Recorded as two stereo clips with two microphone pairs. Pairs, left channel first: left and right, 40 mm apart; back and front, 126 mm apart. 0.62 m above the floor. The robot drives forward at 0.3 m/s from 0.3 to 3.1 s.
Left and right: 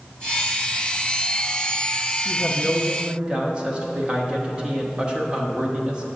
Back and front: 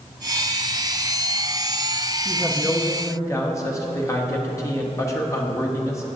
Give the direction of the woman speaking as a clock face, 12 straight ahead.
4 o'clock.